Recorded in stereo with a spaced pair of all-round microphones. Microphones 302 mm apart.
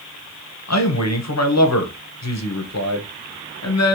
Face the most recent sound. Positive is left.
turn(degrees=60)  # may be behind; listen again after turning